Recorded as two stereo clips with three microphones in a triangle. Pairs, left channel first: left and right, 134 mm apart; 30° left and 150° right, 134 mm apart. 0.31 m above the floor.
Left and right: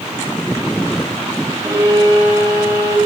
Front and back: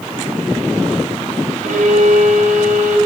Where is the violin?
150° right, 6 m.